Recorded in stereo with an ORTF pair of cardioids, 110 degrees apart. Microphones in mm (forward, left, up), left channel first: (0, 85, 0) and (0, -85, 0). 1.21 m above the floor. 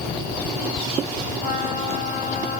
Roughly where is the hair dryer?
I don't hear a hair dryer.